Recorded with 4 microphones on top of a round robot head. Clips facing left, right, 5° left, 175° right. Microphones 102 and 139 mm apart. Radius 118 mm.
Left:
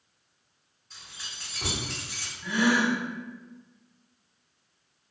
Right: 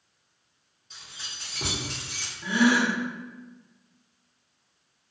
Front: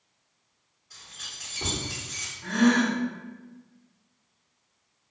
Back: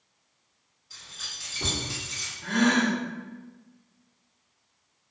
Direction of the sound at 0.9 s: 100° right.